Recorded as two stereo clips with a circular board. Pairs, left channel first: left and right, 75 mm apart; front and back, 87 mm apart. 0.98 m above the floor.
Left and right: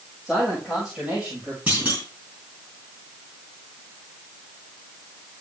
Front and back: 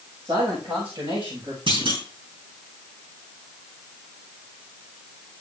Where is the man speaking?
Straight behind, 5 m; by 1.6 s 160° right, 5 m.